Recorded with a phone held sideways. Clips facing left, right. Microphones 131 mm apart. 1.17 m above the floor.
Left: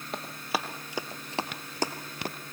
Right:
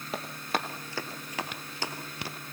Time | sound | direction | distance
0.1 | running footsteps | centre (ahead or behind) | 2 m